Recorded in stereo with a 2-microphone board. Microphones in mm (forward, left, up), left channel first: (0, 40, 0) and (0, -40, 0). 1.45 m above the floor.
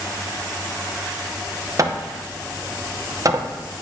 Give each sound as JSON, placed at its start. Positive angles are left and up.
{"t": 1.8, "sound": "hammering", "side_deg": -45, "distance_m": 0.6}